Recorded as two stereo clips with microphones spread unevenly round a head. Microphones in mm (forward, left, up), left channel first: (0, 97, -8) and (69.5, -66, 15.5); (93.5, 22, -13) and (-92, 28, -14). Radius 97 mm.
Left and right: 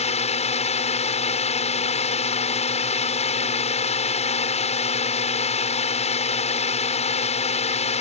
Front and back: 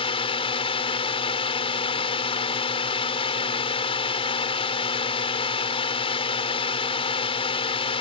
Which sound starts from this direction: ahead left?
A drone, at 0.0 s.